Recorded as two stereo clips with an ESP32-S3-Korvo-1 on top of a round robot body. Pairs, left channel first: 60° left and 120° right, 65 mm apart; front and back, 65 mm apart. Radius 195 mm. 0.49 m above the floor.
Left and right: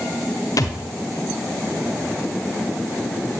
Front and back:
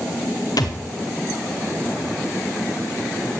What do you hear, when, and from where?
0.6 s a thud: 25° left, 1.6 m